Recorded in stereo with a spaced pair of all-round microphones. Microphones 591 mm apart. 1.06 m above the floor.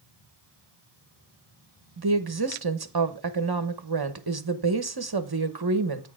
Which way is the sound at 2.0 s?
40° right (ahead or behind).